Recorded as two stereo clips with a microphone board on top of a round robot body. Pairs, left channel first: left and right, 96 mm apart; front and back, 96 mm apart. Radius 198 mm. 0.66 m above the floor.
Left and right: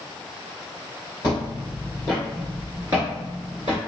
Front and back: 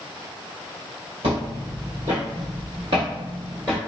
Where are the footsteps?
150° left, 1.2 m; by 3.8 s 105° right, 0.8 m.